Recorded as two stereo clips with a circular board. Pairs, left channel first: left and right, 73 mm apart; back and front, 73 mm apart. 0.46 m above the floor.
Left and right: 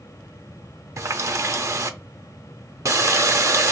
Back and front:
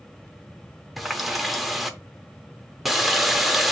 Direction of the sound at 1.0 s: 85° right.